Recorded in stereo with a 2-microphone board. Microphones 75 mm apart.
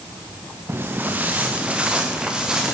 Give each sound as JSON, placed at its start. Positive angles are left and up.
{"t": 0.7, "sound": "footsteps", "side_deg": -30, "distance_m": 1.2}